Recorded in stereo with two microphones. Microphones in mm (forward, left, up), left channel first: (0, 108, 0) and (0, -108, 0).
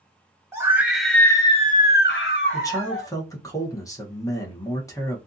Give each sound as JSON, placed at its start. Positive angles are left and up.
{"t": 0.5, "sound": "a scream", "side_deg": -15, "distance_m": 1.0}
{"t": 2.5, "sound": "a man speaking", "side_deg": 15, "distance_m": 0.8}